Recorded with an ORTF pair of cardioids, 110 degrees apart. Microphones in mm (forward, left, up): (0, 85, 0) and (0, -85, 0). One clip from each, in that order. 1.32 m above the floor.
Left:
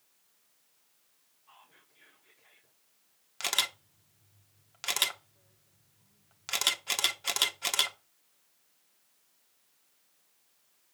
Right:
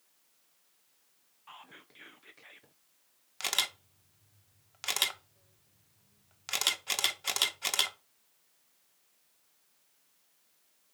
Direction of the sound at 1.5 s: 65° right.